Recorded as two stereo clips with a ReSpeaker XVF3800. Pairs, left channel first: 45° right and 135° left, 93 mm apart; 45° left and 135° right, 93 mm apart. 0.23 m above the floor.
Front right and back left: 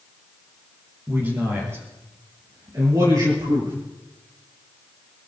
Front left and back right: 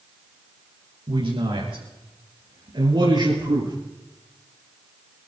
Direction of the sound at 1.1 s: 160° right.